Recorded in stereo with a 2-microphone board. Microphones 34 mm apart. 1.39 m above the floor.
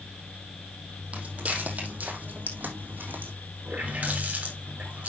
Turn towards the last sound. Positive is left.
turn(degrees=-45)  # may be behind; listen again after turning